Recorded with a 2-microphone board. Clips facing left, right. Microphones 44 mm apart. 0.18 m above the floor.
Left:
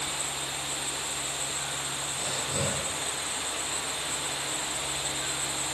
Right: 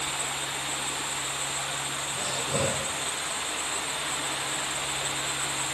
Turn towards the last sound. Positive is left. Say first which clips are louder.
# right 4 dB
turn(degrees=-65)  # may be behind; listen again after turning